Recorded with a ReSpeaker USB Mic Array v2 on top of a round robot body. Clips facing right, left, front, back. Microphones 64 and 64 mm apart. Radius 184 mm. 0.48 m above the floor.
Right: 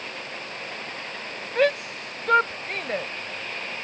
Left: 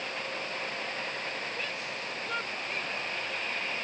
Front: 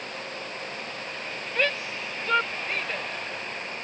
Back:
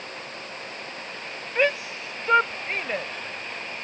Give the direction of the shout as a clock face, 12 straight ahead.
4 o'clock.